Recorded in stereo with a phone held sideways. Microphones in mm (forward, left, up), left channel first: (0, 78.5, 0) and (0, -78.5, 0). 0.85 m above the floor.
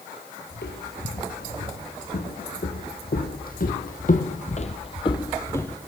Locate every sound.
0.5 s footsteps: 80° left, 5.5 m; by 5.8 s 10° left (ahead or behind), 1.8 m